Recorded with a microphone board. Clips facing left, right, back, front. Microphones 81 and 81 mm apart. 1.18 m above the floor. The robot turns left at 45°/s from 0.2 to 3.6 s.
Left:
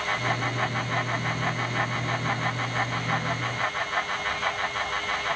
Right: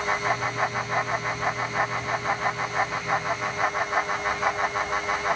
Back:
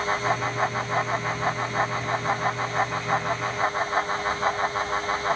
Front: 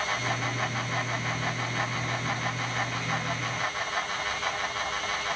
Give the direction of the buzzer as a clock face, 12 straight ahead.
I don't hear a buzzer.